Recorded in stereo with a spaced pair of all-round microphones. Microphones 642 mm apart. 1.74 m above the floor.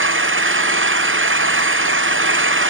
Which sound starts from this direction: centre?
An engine running, at 0.0 s.